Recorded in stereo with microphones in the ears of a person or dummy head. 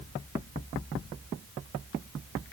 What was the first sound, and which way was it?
Only background noise.